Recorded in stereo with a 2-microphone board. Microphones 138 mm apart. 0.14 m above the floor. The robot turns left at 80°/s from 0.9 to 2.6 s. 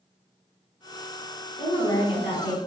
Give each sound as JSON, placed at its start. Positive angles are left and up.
{"t": 1.6, "sound": "a woman speaking", "azimuth_deg": 125, "distance_m": 1.5}